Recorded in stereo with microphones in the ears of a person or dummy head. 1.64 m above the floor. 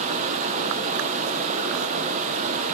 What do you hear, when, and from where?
0.0 s running water: 35° right (ahead or behind), 0.9 m